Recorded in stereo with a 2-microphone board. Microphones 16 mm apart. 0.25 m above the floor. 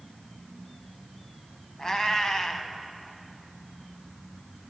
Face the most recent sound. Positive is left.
turn(degrees=40)  # may be behind; listen again after turning